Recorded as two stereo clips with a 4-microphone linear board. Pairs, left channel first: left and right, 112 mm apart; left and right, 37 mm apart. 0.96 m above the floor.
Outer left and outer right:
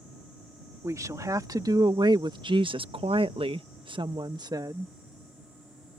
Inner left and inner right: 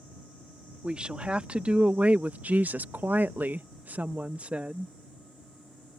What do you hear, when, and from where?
0.8 s a woman speaking: 30° right (ahead or behind)